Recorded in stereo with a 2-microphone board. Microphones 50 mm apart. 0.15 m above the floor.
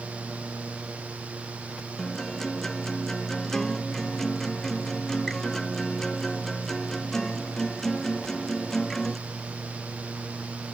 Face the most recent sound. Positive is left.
turn(degrees=10)  # may be behind; listen again after turning